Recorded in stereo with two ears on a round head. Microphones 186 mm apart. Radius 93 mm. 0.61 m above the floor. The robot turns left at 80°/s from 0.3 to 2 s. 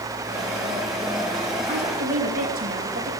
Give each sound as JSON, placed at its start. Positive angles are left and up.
{"t": 1.7, "sound": "a woman speaking", "side_deg": -20, "distance_m": 4.0}